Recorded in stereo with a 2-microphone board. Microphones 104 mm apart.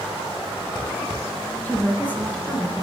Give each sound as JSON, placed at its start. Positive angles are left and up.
{"t": 1.6, "sound": "a woman speaking", "side_deg": 15, "distance_m": 1.1}